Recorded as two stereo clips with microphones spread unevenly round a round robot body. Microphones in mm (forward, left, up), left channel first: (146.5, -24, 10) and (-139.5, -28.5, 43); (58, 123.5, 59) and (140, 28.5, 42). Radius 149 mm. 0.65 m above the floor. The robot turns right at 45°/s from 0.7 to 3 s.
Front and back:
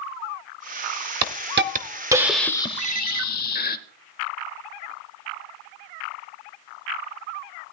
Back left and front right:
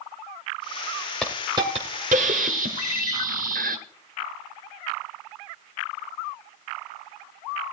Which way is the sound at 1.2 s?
140° right.